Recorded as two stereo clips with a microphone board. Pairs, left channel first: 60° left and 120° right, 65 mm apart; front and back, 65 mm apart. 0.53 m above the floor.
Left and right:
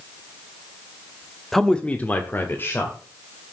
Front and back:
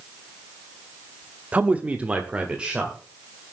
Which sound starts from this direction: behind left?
A man speaking, at 1.5 s.